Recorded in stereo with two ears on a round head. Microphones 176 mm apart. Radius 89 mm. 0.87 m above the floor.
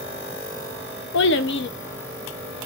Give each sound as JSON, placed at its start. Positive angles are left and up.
{"t": 1.1, "sound": "a child speaking", "side_deg": 60, "distance_m": 0.6}